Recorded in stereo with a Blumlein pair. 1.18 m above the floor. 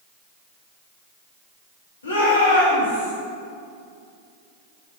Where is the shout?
70° left, 2.5 m; by 3.1 s 80° left, 3 m.